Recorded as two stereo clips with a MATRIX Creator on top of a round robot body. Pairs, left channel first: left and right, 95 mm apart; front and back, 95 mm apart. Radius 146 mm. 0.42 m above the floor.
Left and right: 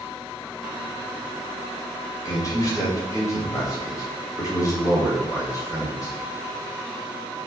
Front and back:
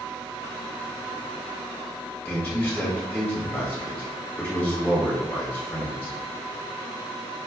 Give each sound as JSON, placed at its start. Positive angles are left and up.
{"t": 2.2, "sound": "a man speaking", "azimuth_deg": 65, "distance_m": 1.7}